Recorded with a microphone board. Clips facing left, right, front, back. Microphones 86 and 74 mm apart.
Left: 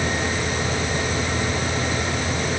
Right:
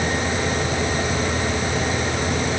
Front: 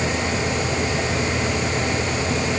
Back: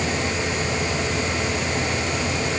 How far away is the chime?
I don't hear a chime.